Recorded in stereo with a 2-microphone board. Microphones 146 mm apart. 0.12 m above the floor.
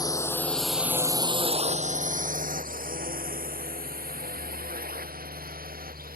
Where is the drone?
25° left (ahead or behind); by 6.2 s 85° right.